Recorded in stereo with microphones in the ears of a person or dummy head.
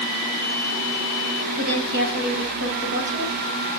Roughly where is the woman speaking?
Right.